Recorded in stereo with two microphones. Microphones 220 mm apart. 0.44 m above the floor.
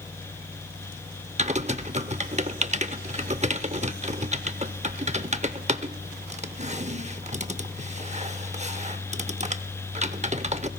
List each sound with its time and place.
1.4 s typing on a keyboard: 30° right (ahead or behind), 0.7 m